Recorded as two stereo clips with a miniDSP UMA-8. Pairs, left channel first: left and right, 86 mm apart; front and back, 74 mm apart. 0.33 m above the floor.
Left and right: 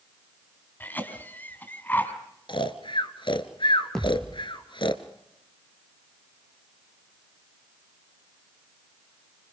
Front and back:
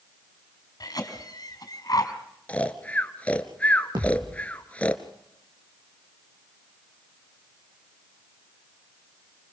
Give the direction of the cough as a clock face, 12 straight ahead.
11 o'clock.